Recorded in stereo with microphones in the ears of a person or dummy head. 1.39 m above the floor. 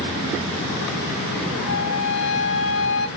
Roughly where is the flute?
Left.